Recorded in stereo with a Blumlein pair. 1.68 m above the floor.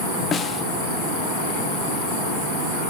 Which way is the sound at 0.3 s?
20° left.